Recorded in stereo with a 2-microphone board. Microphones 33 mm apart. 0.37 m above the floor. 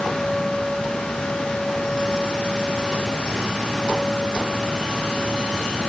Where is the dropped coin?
No dropped coin in this recording.